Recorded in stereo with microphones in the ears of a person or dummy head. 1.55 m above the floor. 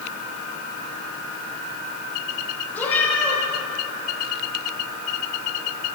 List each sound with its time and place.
2.7 s a cat meowing: 10° left (ahead or behind), 4.5 m